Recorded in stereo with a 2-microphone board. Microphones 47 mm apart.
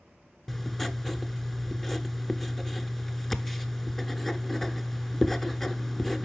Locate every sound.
0.5 s writing: 10° left (ahead or behind), 0.7 m